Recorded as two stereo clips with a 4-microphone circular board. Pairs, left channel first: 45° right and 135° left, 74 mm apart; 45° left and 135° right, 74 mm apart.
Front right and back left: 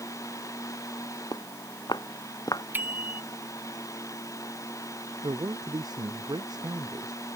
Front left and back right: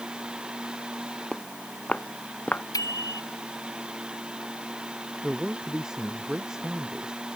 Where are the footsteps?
30° right; by 2.6 s 20° right.